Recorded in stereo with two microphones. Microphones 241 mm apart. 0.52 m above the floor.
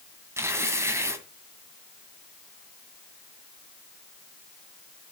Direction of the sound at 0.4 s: 10° right (ahead or behind).